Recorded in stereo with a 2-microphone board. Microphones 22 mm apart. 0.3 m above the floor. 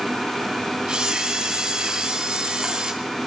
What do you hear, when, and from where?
0.9 s a camera shutter: 45° right (ahead or behind), 3 m